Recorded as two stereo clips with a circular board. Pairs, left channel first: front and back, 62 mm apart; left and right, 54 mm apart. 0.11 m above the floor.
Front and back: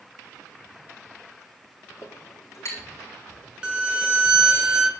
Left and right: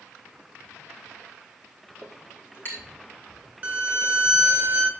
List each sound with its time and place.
2.0 s a clink: 45° left, 3.5 m
3.6 s a violin: 110° right, 0.9 m